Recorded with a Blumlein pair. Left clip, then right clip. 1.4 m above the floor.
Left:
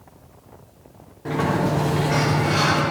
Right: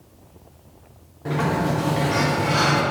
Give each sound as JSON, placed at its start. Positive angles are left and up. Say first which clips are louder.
{"t": 1.2, "sound": "a sliding door", "louder": "left 1 dB", "azimuth_deg": 0, "distance_m": 3.0}